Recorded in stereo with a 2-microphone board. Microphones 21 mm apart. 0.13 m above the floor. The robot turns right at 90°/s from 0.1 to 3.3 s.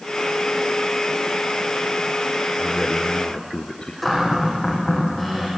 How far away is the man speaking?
About 1.8 m.